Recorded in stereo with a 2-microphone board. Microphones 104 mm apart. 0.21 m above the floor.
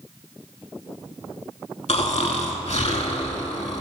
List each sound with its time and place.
1.9 s snoring: 75° left (ahead or behind), 0.5 m